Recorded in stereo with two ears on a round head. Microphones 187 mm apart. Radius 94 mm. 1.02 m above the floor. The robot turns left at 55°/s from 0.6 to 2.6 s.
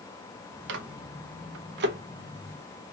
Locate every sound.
0.7 s a microwave: 55° right (ahead or behind), 0.6 m; by 2.0 s 45° right (ahead or behind), 0.6 m